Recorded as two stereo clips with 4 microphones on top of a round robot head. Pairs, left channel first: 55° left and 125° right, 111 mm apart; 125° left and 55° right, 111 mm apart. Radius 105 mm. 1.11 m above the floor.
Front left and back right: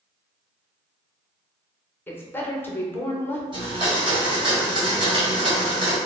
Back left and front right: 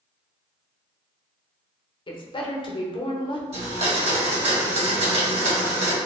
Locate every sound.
2.1 s a woman speaking: 120° left, 0.9 m
3.5 s a blender: 80° right, 1.8 m